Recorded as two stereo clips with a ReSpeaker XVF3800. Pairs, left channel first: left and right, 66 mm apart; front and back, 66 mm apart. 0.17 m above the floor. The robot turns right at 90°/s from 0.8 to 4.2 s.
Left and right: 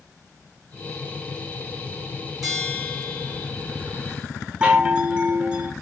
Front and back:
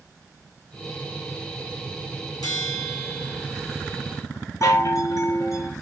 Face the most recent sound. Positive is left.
turn(degrees=-20)